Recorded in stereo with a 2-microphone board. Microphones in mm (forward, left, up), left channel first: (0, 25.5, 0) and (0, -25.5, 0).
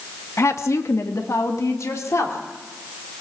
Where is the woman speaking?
65° left (ahead or behind), 1.4 m; by 2.4 s 85° left, 3.5 m.